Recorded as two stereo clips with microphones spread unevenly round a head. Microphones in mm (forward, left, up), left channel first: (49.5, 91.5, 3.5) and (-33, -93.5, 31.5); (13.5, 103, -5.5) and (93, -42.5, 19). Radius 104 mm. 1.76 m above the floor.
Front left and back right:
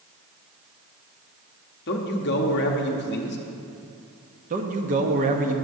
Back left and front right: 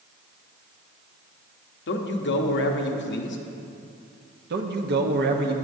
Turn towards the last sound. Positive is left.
turn(degrees=-65)